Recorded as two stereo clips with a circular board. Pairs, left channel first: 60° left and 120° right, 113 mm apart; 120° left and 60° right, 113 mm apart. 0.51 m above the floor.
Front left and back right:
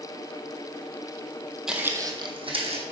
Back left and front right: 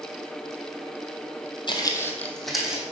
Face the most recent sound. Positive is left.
turn(degrees=-140)